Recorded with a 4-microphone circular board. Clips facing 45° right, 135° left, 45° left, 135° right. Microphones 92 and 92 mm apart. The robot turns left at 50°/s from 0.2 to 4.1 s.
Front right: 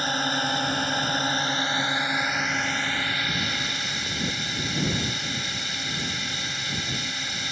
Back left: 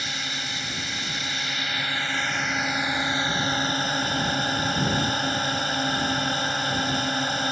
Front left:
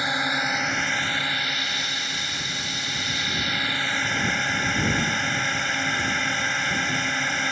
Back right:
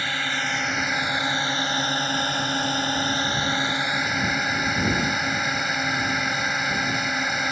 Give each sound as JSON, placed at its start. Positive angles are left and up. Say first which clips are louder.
{"t": 0.0, "sound": "a drone", "louder": "front right 8 dB, front left 2 dB", "azimuth_deg": -20}